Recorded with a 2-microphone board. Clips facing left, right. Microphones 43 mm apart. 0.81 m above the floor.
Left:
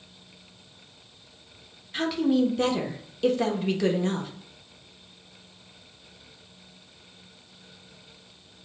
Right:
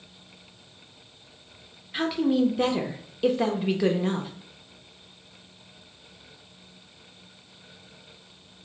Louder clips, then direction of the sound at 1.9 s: Even; 5° right (ahead or behind).